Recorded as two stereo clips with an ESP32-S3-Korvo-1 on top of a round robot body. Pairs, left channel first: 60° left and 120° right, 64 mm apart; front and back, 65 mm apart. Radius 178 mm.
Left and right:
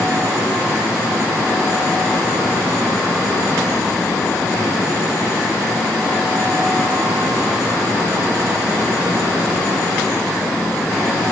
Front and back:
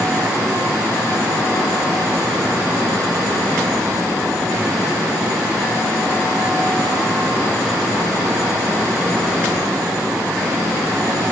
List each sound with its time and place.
Only background noise.